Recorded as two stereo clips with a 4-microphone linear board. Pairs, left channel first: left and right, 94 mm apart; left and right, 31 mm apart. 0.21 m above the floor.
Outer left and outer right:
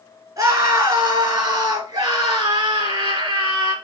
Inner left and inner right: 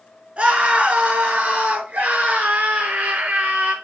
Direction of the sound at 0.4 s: 35° right (ahead or behind).